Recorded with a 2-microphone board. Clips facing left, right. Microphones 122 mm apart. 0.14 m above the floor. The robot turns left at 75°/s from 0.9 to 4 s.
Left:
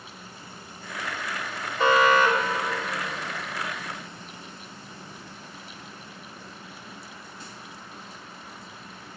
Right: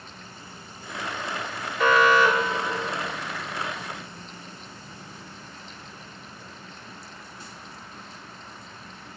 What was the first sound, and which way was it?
An alarm, 135° left.